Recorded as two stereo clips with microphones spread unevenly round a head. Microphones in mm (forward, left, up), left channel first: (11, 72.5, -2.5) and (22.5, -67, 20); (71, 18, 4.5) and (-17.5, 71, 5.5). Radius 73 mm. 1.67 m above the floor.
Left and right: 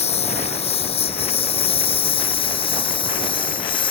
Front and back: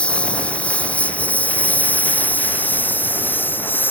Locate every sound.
0.0 s a lawn mower: 50° left; by 3.9 s 40° left